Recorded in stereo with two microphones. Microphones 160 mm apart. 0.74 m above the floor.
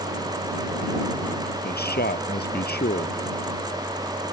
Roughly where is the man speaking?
Left.